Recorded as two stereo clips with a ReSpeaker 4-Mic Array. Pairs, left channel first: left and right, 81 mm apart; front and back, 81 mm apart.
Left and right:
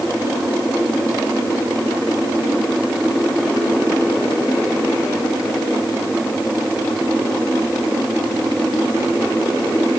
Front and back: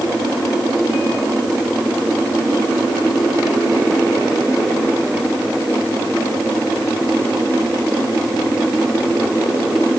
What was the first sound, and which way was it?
Only background noise.